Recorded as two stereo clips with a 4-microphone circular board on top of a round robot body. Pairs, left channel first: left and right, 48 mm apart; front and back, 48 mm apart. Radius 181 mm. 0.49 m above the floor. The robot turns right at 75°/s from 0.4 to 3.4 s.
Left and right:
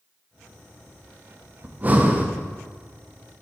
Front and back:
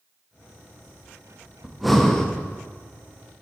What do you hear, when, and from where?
1.6 s breathing: 105° right, 1.2 m; by 2.3 s 55° right, 1.2 m